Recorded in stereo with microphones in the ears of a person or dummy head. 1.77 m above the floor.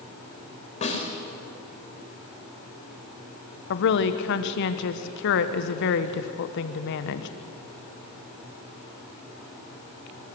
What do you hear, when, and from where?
0.8 s a snare drum: 40° left (ahead or behind), 4.5 m
3.7 s a woman speaking: 65° left (ahead or behind), 1.3 m